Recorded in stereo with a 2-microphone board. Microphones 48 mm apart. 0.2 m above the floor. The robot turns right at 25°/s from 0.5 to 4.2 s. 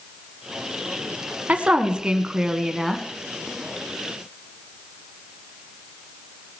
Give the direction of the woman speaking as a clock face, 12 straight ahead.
1 o'clock.